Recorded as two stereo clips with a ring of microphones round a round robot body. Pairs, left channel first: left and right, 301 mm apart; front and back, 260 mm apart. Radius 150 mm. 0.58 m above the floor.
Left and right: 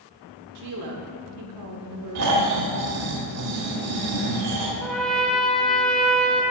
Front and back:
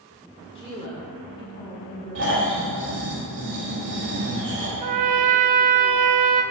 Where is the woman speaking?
70° right, 1.6 m.